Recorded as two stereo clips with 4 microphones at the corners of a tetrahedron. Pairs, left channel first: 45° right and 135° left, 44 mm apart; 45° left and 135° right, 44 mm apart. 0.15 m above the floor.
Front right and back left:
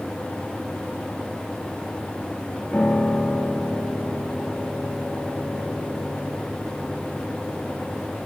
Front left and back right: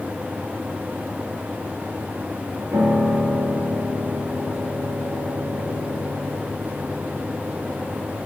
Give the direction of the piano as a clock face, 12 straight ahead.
4 o'clock.